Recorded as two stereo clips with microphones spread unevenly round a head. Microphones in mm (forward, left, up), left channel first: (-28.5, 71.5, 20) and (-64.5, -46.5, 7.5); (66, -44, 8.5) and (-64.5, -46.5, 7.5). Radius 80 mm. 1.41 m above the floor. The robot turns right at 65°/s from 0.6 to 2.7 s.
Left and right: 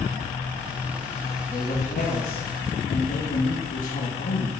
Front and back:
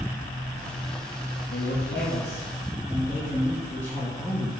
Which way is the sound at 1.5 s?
Straight ahead.